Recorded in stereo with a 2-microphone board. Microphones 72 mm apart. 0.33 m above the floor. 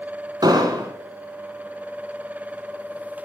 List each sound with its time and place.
0.4 s an explosion: 75° right (ahead or behind), 1.3 m